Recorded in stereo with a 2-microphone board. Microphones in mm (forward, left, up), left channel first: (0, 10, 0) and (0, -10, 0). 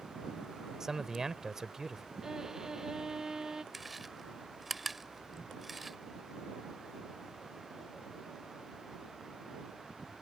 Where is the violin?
20° right (ahead or behind).